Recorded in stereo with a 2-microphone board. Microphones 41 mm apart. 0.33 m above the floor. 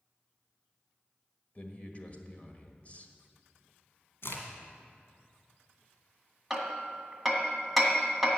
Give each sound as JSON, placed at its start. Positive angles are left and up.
{"t": 1.6, "sound": "a man speaking", "side_deg": 35, "distance_m": 1.4}
{"t": 4.2, "sound": "a crack", "side_deg": 65, "distance_m": 2.0}
{"t": 6.5, "sound": "hammering", "side_deg": -5, "distance_m": 1.7}